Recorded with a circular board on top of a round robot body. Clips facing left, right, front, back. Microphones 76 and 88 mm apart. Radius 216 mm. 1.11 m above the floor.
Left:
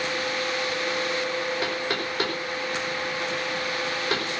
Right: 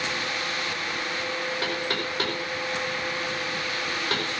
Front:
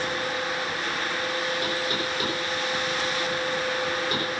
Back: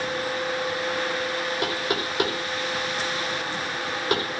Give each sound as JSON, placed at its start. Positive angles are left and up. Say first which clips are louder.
{"t": 1.6, "sound": "knocking", "louder": "left 1 dB, back 1 dB", "azimuth_deg": 175, "distance_m": 5.0}